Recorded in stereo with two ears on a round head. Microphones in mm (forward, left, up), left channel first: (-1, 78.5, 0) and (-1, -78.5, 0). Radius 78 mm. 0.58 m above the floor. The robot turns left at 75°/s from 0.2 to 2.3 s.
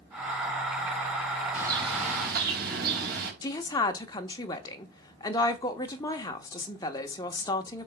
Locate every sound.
1.5 s a bird: 10° right, 3 m; by 3.3 s 70° right, 3 m
3.4 s a woman speaking: 20° left (ahead or behind), 1.0 m